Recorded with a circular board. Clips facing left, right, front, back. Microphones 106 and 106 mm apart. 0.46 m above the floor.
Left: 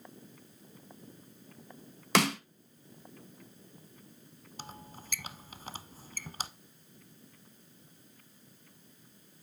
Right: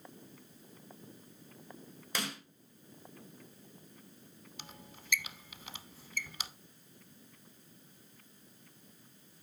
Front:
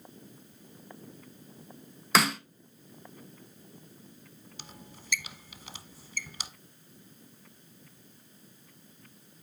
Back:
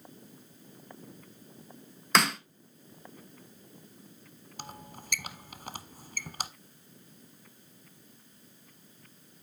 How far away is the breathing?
I don't hear breathing.